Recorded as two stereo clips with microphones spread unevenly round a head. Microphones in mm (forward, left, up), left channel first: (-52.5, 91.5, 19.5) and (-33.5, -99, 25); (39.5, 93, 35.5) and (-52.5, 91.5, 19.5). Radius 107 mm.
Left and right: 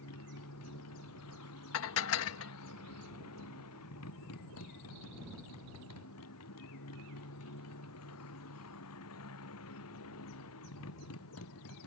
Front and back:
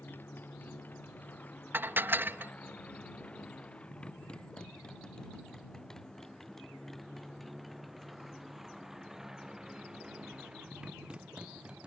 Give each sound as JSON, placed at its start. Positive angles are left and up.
{"t": 0.0, "sound": "a motorcycle", "azimuth_deg": 70}
{"t": 1.7, "sound": "dishes clattering", "azimuth_deg": 110}